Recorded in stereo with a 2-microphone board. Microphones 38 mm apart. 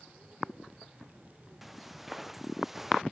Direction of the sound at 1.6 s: 5° right (ahead or behind).